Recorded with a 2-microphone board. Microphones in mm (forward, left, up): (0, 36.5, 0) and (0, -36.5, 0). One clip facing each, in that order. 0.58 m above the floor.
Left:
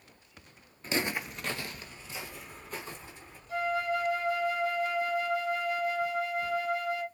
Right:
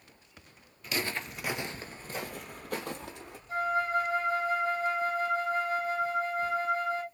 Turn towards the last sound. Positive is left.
turn(degrees=-35)  # may be behind; listen again after turning